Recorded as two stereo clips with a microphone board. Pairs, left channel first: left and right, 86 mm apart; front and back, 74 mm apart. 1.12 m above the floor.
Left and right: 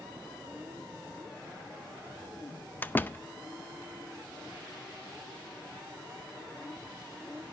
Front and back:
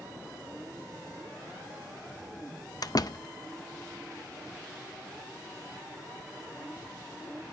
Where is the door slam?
25° left, 0.5 m.